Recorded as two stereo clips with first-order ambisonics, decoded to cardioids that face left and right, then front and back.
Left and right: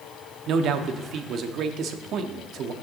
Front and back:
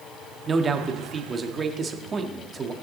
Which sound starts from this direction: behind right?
A man speaking, at 0.5 s.